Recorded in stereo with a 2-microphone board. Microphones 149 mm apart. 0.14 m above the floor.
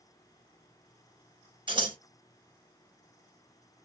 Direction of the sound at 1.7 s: 35° right (ahead or behind).